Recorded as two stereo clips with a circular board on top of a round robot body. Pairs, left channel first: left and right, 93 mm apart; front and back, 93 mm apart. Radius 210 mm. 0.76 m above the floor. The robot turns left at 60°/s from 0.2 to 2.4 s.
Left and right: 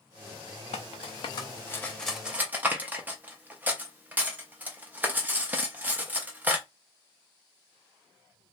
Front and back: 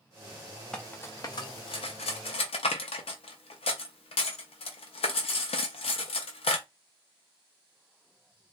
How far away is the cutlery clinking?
About 0.6 m.